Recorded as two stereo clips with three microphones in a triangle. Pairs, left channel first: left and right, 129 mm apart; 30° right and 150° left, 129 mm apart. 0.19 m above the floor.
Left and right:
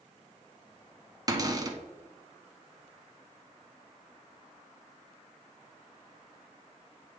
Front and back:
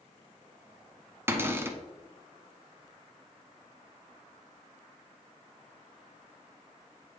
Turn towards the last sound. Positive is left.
turn(degrees=-140)